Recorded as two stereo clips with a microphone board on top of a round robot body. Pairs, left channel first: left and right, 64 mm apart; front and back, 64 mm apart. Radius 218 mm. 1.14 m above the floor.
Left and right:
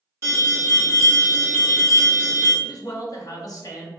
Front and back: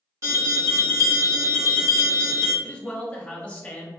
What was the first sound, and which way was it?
An alarm, 140° right.